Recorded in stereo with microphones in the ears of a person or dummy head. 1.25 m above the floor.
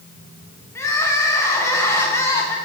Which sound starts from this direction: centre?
Crying, at 0.8 s.